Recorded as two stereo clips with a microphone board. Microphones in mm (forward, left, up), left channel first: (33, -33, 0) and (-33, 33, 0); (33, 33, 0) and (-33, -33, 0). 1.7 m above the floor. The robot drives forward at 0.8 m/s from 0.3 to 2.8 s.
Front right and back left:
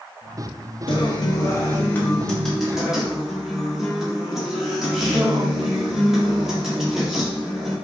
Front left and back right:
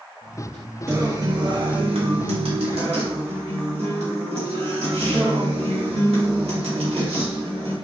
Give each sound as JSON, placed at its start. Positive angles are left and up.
{"t": 0.9, "sound": "a guitar", "azimuth_deg": -70, "distance_m": 1.2}